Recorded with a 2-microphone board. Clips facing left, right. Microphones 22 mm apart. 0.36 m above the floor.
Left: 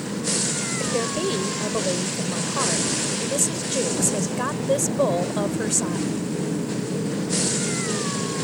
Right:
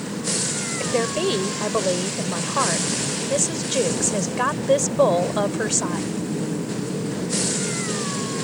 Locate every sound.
0.8 s a woman speaking: 25° right (ahead or behind)